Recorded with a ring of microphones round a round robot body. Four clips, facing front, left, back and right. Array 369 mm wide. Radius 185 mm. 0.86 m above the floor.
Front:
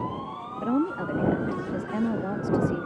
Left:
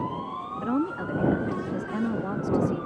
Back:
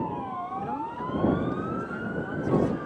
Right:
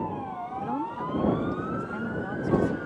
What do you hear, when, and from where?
0.6 s a woman speaking: 30° left